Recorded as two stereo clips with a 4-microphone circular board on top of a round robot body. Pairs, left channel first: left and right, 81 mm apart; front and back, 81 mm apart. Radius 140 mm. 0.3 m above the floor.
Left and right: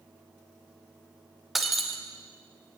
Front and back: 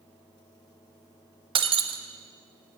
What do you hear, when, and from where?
1.6 s breaking glass: straight behind, 0.6 m